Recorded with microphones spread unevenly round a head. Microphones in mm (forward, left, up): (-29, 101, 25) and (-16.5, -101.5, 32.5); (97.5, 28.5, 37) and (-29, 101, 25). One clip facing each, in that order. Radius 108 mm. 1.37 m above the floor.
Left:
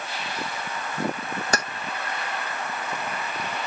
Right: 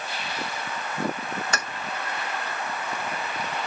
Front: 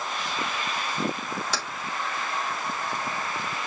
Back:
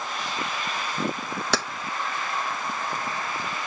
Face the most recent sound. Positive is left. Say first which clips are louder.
# left 9 dB, back 6 dB
turn(degrees=145)